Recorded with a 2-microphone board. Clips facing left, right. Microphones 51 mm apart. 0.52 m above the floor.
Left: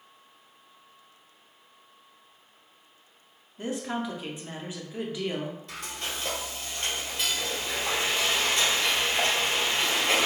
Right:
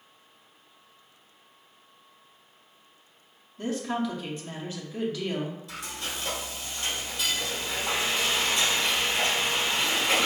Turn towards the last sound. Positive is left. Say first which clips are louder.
# even
turn(degrees=40)  # may be behind; listen again after turning